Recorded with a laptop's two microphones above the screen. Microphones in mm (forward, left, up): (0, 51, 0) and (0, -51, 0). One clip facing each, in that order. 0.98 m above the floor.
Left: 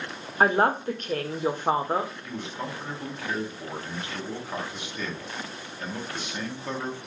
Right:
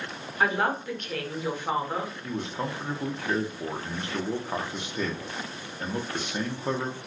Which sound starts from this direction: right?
A man speaking, at 2.2 s.